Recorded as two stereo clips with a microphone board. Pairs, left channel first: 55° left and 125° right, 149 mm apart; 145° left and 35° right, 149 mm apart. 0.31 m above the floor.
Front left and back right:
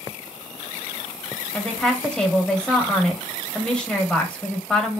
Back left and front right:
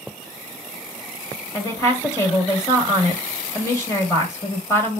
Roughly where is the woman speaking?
Behind left.